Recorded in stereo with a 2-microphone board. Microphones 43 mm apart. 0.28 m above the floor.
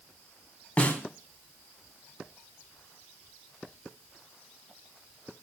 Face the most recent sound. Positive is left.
turn(degrees=30)  # may be behind; listen again after turning